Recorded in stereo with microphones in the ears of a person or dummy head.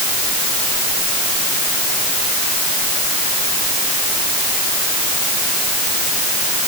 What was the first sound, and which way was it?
Only background noise.